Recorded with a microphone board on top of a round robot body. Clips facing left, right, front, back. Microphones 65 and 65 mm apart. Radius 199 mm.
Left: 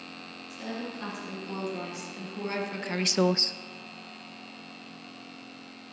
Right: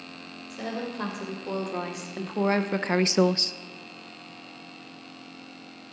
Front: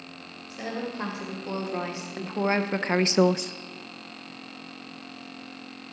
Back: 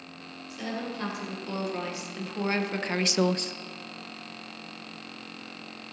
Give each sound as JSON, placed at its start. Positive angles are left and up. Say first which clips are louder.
{"t": 0.5, "sound": "a woman speaking", "louder": "right 4 dB, front 2 dB", "azimuth_deg": -65, "distance_m": 3.5}